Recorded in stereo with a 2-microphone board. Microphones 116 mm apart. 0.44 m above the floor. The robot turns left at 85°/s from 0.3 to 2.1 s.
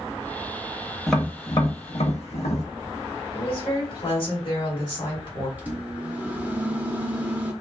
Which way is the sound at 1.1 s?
Centre (ahead or behind).